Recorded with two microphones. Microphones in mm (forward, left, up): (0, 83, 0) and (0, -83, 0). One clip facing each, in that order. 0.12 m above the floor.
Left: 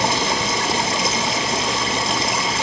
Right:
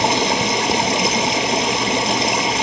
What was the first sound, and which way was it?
Running water, 20° right (ahead or behind).